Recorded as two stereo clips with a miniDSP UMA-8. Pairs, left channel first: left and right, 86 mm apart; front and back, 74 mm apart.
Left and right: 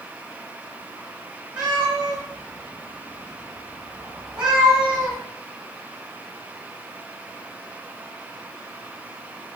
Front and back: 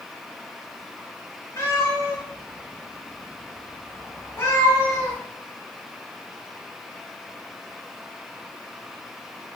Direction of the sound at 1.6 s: 15° right.